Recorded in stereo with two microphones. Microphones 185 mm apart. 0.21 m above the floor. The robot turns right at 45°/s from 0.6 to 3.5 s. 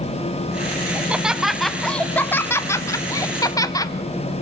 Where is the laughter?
10° right (ahead or behind), 1.0 m; by 3.9 s 20° left (ahead or behind), 1.0 m.